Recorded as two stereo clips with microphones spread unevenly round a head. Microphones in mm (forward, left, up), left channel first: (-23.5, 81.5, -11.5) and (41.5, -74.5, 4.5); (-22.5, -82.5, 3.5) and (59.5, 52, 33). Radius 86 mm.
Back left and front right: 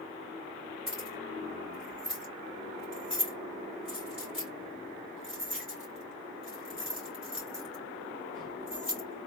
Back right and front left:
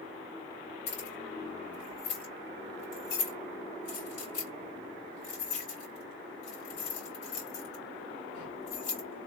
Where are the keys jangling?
150° right, 2 m.